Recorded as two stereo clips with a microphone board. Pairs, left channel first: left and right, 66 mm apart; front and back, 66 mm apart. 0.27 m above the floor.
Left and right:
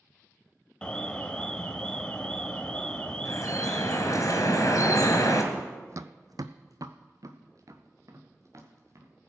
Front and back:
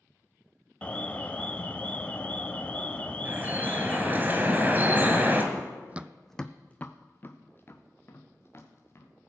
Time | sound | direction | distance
0.8 | an alarm | 35° left | 0.7 m
3.2 | dripping | 120° left | 2 m
5.5 | running footsteps | 160° right | 0.5 m